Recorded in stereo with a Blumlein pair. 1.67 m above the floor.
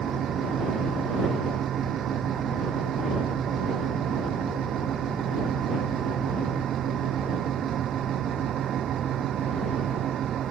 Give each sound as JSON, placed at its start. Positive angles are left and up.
{"t": 0.0, "sound": "a fan", "azimuth_deg": -25}